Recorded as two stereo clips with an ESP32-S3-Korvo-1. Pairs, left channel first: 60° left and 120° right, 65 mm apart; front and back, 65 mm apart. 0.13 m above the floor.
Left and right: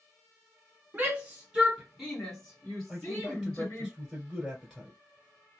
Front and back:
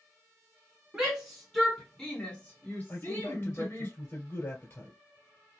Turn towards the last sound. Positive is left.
turn(degrees=-25)